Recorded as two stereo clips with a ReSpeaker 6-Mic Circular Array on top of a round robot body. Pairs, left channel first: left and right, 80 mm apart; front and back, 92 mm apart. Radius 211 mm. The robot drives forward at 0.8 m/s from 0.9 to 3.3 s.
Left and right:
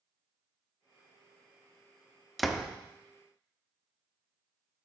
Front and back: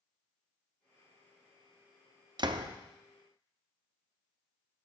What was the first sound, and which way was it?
A door slam, straight behind.